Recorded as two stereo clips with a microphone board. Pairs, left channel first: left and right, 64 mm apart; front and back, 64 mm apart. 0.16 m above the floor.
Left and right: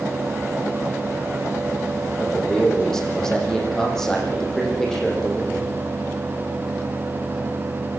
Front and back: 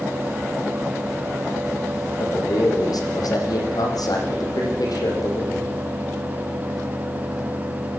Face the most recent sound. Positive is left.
turn(degrees=10)